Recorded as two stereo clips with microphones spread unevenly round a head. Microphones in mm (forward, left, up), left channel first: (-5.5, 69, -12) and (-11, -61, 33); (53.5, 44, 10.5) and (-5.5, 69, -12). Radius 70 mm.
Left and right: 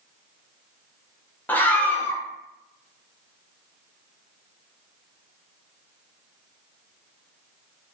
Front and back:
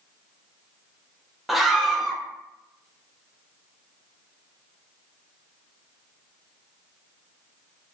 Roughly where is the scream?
Left.